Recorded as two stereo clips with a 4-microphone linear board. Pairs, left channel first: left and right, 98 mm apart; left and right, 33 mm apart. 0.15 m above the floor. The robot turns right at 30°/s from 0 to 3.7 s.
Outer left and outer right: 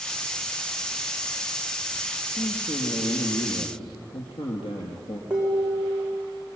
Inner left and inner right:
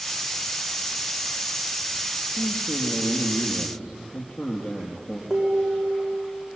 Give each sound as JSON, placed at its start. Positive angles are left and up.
{"t": 2.4, "sound": "a man speaking", "azimuth_deg": 50, "distance_m": 3.0}
{"t": 5.3, "sound": "dishes clattering", "side_deg": -10, "distance_m": 7.0}